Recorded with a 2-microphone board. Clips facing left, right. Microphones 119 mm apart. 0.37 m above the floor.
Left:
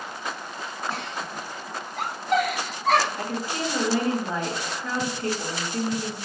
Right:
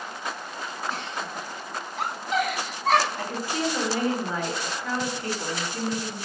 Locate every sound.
0.9 s a giggle: 55° left (ahead or behind), 2 m
3.2 s a woman speaking: 35° left (ahead or behind), 1.8 m